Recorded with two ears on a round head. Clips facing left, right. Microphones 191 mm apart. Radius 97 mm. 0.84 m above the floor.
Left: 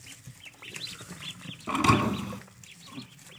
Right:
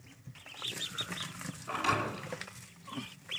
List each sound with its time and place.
1.7 s a thud: 60° left (ahead or behind), 1.6 m